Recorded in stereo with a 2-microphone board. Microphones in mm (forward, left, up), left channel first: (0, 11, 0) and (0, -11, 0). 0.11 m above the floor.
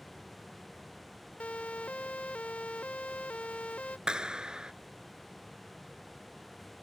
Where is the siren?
85° left; by 4.0 s 80° left.